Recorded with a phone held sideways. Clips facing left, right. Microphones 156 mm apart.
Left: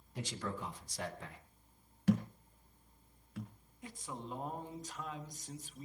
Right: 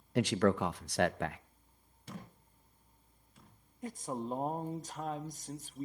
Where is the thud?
75° left (ahead or behind), 3.5 m.